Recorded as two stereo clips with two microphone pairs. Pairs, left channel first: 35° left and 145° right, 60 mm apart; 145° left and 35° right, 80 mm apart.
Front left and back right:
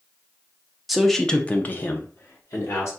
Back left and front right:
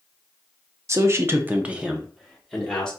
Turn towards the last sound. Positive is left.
turn(degrees=65)